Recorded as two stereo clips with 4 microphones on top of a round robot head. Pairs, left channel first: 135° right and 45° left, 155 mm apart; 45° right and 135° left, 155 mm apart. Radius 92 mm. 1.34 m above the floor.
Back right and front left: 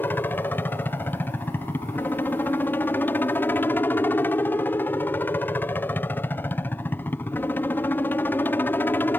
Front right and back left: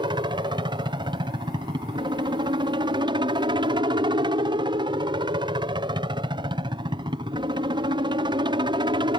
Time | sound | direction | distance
0.0 | a helicopter | 160° left | ?